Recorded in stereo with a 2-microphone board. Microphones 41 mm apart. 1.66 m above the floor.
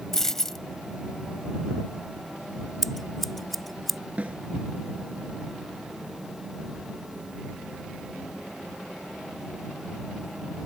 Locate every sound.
0.1 s a dropped coin: 10° left (ahead or behind)
2.8 s scissors: 5° left (ahead or behind)
4.2 s a snare drum: 35° right (ahead or behind)